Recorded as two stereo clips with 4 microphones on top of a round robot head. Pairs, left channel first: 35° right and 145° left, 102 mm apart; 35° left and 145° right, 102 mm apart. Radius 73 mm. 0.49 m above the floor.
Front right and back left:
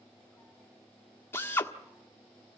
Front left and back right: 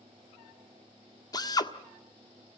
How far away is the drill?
About 1.6 m.